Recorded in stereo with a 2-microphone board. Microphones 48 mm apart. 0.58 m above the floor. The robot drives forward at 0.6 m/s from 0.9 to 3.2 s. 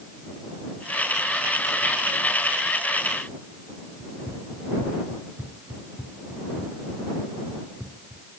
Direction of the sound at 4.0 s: 30° right (ahead or behind).